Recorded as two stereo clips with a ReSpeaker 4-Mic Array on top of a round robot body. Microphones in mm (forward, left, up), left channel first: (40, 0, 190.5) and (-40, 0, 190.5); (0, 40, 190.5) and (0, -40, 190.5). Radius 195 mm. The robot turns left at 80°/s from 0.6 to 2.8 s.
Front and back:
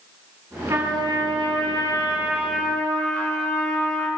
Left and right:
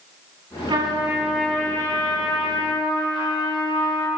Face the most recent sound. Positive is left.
turn(degrees=65)